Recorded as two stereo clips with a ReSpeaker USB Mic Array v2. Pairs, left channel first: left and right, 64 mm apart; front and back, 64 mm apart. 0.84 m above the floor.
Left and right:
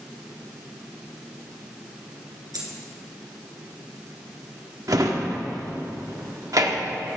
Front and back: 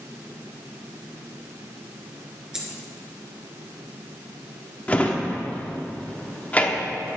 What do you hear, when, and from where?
2.5 s a dropped coin: 95° right, 2.5 m
4.9 s a drawer: 65° right, 1.1 m